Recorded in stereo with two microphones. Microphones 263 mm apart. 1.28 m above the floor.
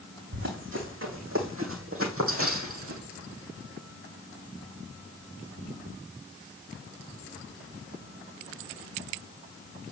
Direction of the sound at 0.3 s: 45° right (ahead or behind).